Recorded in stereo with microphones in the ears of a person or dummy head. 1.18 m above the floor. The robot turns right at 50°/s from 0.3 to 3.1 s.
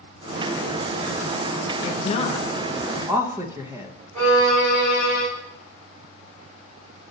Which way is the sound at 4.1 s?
55° right (ahead or behind).